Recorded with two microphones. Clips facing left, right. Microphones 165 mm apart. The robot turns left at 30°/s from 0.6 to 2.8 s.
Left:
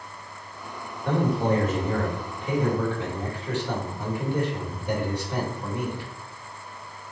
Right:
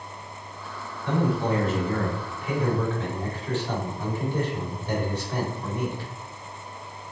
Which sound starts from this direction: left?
A man speaking, at 1.1 s.